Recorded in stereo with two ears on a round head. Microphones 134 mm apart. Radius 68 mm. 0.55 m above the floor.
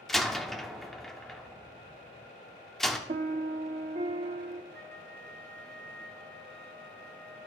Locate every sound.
0.1 s a door slam: centre (ahead or behind), 0.5 m
3.1 s a piano: 45° right (ahead or behind), 0.5 m
4.7 s a flute: 10° left (ahead or behind), 1.5 m